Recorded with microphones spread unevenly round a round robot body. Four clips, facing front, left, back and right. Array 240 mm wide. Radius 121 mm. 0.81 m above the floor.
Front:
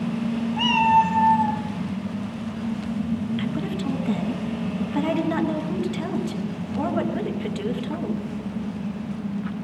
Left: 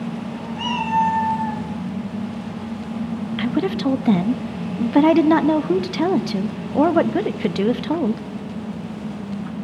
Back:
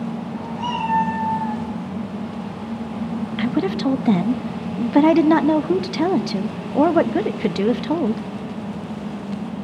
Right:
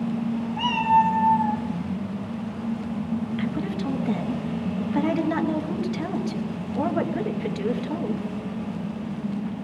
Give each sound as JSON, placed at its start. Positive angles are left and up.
{"t": 0.6, "sound": "a cat meowing", "azimuth_deg": 10, "distance_m": 2.5}
{"t": 3.4, "sound": "a woman speaking", "azimuth_deg": 140, "distance_m": 0.6}